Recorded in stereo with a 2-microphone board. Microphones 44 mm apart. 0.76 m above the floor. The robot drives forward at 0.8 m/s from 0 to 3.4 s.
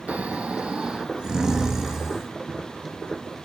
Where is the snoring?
35° right (ahead or behind), 0.8 m; by 2.3 s 15° right (ahead or behind), 2 m.